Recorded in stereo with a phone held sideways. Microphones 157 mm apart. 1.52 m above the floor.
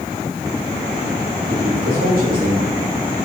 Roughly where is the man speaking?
Right.